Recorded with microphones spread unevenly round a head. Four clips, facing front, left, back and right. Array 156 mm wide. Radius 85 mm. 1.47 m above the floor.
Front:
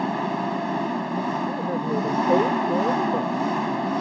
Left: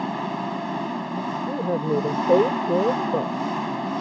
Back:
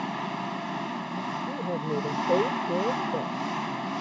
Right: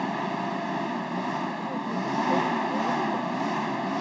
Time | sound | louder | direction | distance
0.0 | an engine running | left 2 dB, front 7 dB | 5° right | ?
1.5 | a woman speaking | left 7 dB, front 5 dB | 75° left | ?